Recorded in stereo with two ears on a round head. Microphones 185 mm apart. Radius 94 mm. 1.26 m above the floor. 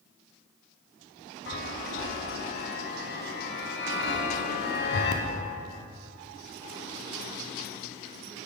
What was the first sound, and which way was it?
A chime, 50° left (ahead or behind).